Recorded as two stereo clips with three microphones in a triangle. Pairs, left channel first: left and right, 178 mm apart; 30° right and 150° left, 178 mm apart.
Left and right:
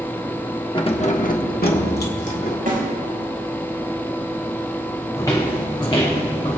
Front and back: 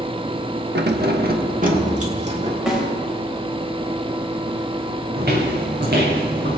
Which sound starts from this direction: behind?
Footsteps, at 5.2 s.